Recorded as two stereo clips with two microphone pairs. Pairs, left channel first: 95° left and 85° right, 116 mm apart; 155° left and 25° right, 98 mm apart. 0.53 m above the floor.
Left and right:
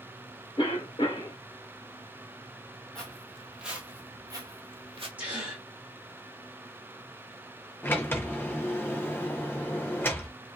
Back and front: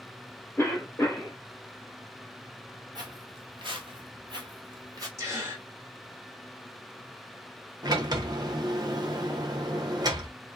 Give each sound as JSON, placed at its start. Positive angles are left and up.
{"t": 0.6, "sound": "a cough", "azimuth_deg": 100, "distance_m": 1.2}
{"t": 3.0, "sound": "footsteps", "azimuth_deg": 10, "distance_m": 1.3}
{"t": 5.2, "sound": "a gasp", "azimuth_deg": -20, "distance_m": 1.5}
{"t": 7.8, "sound": "a sliding door", "azimuth_deg": 20, "distance_m": 0.6}